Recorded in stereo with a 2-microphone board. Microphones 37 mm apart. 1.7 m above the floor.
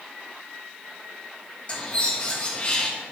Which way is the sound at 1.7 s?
35° left (ahead or behind).